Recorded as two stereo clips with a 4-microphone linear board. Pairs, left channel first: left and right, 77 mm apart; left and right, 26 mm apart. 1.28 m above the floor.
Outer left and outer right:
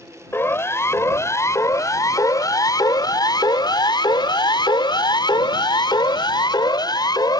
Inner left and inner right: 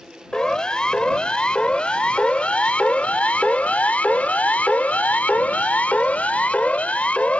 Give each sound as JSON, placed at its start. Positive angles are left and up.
{"t": 0.3, "sound": "a siren", "side_deg": 30}